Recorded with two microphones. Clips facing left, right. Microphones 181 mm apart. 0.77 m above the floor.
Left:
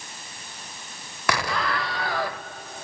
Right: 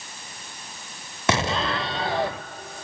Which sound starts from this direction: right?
An explosion, at 1.3 s.